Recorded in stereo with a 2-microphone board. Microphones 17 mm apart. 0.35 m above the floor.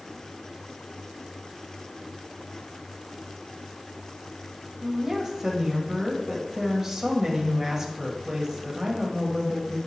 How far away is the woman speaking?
About 1.7 m.